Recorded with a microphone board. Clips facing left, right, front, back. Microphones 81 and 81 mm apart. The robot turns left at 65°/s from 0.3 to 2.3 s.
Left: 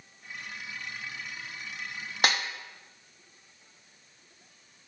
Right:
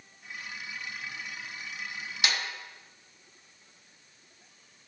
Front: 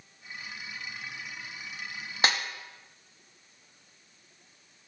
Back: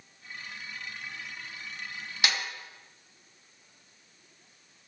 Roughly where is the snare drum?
Ahead left.